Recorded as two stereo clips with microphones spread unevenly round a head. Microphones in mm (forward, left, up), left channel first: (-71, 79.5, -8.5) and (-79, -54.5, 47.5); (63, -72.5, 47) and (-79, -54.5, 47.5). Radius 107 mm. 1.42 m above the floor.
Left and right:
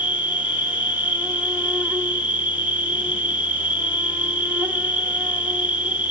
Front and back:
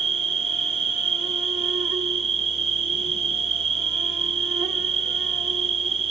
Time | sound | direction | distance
0.0 | an insect | 155° right | 1.7 m